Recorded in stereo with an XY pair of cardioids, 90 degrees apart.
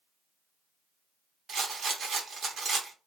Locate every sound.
1.5 s a rattle: 60° right, 0.8 m